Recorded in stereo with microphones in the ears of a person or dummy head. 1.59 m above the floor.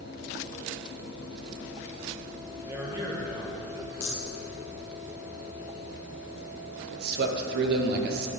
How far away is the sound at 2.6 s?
About 2 m.